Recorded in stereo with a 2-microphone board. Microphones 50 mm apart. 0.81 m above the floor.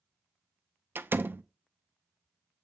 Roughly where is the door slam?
Right.